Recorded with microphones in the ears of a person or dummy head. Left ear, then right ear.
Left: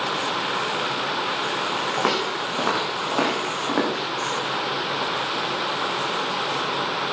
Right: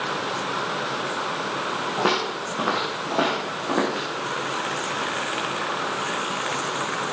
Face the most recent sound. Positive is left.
turn(degrees=35)  # may be behind; listen again after turning